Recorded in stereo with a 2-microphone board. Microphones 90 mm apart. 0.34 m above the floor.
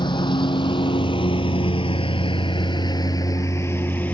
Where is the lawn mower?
60° left (ahead or behind); by 4.1 s 20° left (ahead or behind).